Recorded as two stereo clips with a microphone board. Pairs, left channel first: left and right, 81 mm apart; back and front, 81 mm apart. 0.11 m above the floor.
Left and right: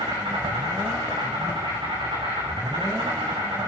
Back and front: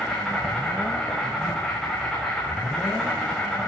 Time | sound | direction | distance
0.0 | an insect | 95° right | 8.5 m